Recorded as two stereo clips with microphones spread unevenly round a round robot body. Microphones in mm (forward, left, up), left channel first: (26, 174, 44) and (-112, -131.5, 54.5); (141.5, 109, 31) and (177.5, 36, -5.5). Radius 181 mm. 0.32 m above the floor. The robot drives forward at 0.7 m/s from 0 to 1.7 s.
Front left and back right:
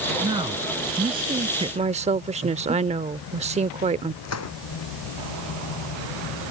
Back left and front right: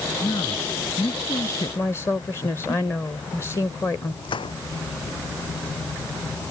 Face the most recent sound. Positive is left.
turn(degrees=110)